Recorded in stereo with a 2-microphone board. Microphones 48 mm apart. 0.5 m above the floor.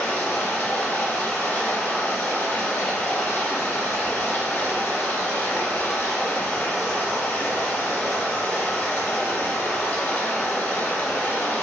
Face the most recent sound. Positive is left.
turn(degrees=40)  # may be behind; listen again after turning